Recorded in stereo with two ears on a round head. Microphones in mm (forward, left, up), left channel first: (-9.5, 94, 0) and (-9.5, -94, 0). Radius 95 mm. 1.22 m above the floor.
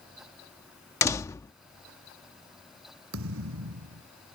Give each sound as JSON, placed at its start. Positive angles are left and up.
{"t": 1.0, "sound": "a door slam", "side_deg": 15}
{"t": 3.1, "sound": "a thud", "side_deg": -70}